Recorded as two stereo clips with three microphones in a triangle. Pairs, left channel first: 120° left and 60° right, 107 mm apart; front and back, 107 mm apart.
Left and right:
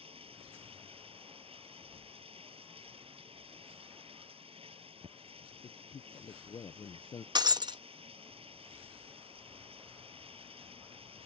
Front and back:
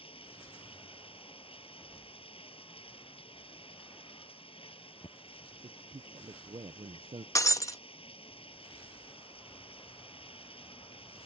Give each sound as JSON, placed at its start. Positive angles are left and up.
{"t": 0.0, "sound": "running water", "azimuth_deg": -30}
{"t": 5.6, "sound": "a man speaking", "azimuth_deg": 155}
{"t": 7.3, "sound": "breaking glass", "azimuth_deg": -45}